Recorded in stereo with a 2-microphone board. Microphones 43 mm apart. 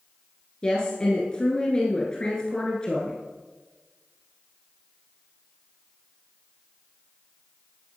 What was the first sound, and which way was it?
A woman speaking, 20° left (ahead or behind).